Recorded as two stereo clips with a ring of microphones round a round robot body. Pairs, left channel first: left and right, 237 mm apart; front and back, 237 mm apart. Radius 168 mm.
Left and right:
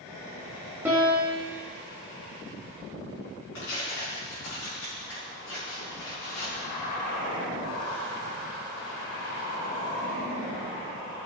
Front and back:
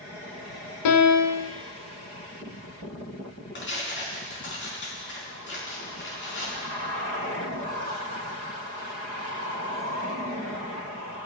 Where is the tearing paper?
35° left, 4.5 m.